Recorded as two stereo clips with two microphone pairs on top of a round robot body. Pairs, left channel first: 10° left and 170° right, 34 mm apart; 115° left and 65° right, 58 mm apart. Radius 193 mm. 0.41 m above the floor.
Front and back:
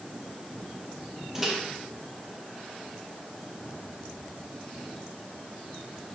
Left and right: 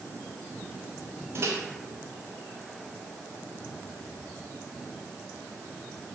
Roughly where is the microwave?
Right.